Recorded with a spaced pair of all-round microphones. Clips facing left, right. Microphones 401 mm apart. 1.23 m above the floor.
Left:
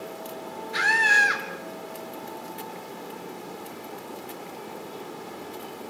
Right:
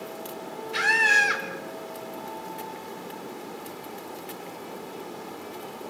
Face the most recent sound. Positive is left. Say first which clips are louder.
# right 1 dB
turn(degrees=-40)  # may be behind; listen again after turning